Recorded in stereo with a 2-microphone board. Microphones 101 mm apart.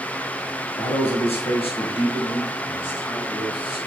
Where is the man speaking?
80° left, 1.3 m; by 3.8 s 55° left (ahead or behind), 3.5 m.